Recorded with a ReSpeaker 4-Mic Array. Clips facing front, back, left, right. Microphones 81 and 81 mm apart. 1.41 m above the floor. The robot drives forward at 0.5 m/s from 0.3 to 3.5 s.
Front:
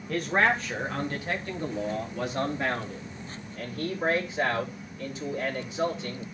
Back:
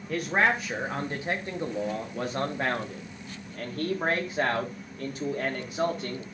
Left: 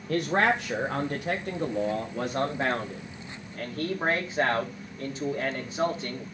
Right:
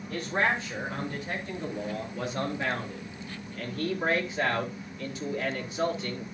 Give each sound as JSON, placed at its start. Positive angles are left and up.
{"t": 0.1, "sound": "a man speaking", "azimuth_deg": 95, "distance_m": 1.3}